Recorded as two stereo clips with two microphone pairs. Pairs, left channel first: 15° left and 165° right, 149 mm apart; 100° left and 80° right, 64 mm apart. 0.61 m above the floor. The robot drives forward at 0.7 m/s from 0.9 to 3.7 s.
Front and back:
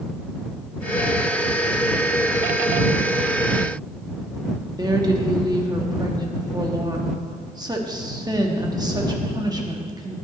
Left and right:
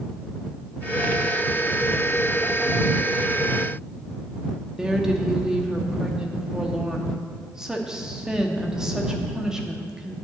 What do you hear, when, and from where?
4.8 s a woman speaking: 145° right, 1.0 m